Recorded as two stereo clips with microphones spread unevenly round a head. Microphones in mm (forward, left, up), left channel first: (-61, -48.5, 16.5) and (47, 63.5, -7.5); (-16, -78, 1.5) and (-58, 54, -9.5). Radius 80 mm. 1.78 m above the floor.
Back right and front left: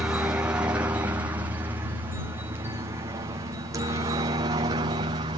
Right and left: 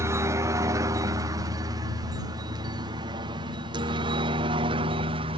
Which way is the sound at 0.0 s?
100° left.